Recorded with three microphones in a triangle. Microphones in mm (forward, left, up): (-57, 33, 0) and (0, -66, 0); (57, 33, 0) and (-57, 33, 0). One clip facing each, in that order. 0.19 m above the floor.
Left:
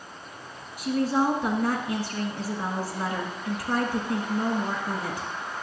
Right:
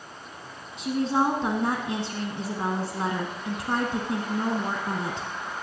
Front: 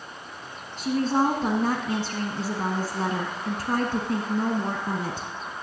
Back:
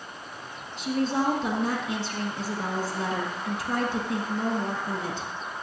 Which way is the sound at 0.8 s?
5° right.